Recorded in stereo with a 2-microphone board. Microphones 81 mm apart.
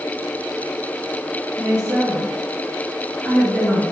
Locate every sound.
1.6 s a woman speaking: 40° left (ahead or behind), 1.7 m